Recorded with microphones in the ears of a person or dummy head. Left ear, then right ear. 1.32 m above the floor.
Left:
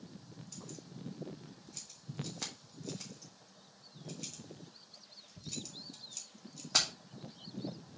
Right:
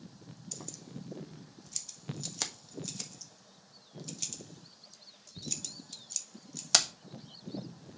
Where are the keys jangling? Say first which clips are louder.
Right 5 dB; 80° right, 1.4 m.